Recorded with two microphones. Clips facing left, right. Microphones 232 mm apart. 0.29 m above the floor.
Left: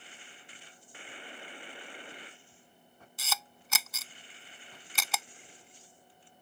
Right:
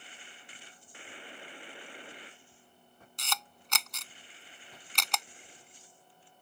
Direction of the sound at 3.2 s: 5° left (ahead or behind).